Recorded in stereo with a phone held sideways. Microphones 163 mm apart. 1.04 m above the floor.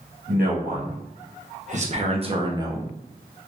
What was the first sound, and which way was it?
A man speaking, 65° right (ahead or behind).